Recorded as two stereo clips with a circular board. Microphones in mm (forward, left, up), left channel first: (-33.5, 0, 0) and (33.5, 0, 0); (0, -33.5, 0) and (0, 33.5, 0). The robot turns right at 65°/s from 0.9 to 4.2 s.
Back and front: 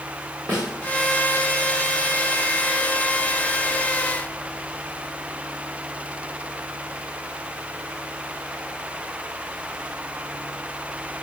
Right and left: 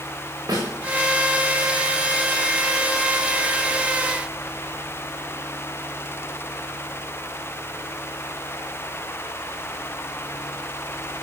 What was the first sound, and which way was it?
A snare drum, 55° left.